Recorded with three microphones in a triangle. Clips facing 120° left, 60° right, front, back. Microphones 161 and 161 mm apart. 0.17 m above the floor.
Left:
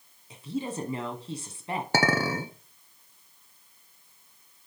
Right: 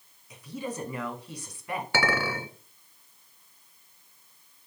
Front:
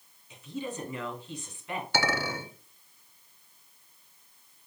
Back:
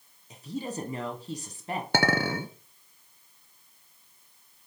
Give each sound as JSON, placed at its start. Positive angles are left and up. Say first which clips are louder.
{"t": 0.3, "sound": "a woman speaking", "louder": "left 3 dB, back 2 dB", "azimuth_deg": 165, "distance_m": 1.3}
{"t": 1.9, "sound": "a clink", "louder": "left 3 dB, back 4 dB", "azimuth_deg": 165, "distance_m": 1.0}